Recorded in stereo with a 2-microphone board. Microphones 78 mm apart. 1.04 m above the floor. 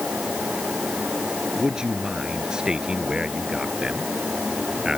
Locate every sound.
1.6 s a man speaking: 10° right (ahead or behind)